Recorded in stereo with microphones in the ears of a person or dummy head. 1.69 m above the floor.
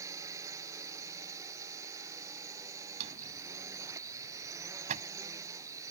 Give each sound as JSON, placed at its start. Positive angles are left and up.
{"t": 0.0, "sound": "a drone", "side_deg": -15}
{"t": 3.0, "sound": "a drawer", "side_deg": -45}